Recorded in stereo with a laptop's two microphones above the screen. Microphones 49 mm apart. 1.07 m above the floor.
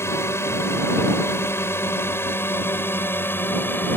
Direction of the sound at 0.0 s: 70° left (ahead or behind).